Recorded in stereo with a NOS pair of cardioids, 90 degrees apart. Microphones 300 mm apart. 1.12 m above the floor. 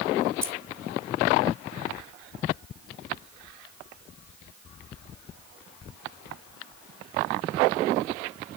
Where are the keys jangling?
10° right, 2.5 m.